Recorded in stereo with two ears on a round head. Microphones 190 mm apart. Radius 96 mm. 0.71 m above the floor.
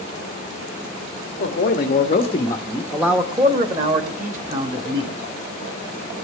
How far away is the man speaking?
About 1.4 m.